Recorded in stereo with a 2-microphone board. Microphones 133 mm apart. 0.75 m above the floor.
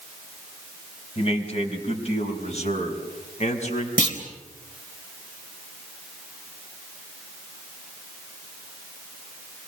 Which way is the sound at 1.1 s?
50° left (ahead or behind).